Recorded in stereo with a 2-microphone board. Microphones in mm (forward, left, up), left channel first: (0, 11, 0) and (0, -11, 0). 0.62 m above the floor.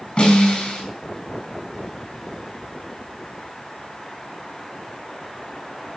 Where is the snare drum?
40° left (ahead or behind), 5 m.